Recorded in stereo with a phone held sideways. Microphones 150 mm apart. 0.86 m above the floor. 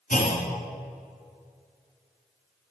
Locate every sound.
0.1 s a clunk: 70° left (ahead or behind), 1.8 m